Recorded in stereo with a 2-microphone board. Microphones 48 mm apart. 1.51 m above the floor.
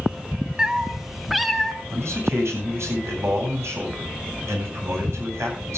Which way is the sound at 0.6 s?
15° right (ahead or behind).